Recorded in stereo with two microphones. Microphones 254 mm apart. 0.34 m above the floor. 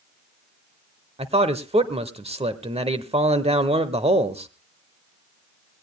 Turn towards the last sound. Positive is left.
turn(degrees=-25)  # may be behind; listen again after turning